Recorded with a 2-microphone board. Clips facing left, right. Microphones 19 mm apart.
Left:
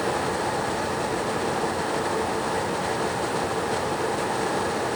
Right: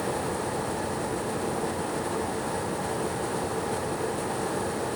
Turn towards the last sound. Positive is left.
No sound to turn to.